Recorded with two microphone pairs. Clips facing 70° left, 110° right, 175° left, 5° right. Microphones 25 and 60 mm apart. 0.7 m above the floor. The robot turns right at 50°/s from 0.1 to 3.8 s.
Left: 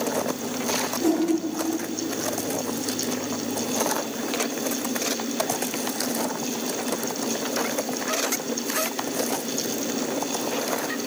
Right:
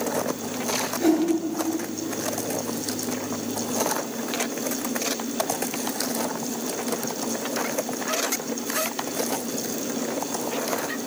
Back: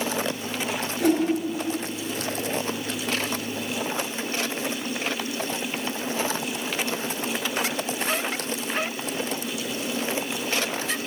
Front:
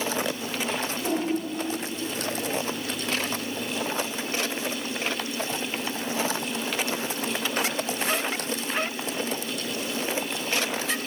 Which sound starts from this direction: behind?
A whoosh, at 1.0 s.